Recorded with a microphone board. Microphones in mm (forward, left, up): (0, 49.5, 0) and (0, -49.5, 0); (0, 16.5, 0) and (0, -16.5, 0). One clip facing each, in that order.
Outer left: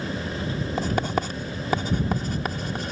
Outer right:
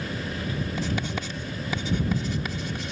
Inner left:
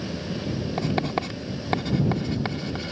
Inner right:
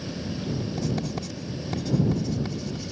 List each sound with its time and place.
0.8 s writing: 45° left (ahead or behind)